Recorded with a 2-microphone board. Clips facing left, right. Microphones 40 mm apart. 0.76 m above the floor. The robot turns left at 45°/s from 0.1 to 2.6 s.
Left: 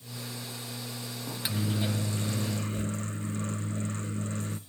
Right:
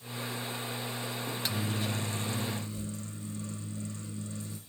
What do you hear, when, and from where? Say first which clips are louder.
1.3 s a microwave: left 4 dB; straight behind, 0.6 m; by 4.6 s 120° left, 0.6 m